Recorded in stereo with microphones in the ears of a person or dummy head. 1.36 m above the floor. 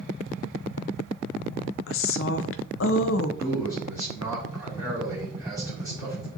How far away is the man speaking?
About 3 m.